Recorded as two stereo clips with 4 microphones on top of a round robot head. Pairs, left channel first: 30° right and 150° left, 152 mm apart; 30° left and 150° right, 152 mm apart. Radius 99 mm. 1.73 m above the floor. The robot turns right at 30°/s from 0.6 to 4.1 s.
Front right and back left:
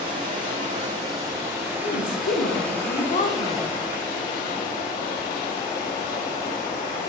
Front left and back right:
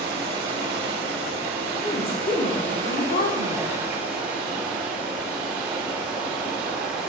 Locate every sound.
0.0 s running water: 170° right, 3 m; by 7.1 s 65° right, 3 m
1.8 s a woman speaking: 30° right, 1.5 m; by 3.7 s 25° left, 1.5 m